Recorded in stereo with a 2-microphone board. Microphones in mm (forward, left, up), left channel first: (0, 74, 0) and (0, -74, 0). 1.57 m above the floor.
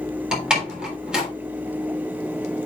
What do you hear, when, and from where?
0.3 s a door slam: 5° right (ahead or behind), 3.5 m